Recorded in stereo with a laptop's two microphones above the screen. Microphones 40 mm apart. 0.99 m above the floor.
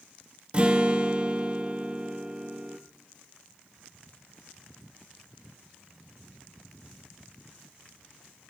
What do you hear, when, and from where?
0.5 s a guitar: 25° right (ahead or behind), 0.7 m